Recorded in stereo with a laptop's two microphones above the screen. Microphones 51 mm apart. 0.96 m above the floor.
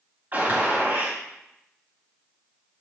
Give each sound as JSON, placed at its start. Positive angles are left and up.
{"t": 0.3, "sound": "a gunshot", "side_deg": -40, "distance_m": 2.5}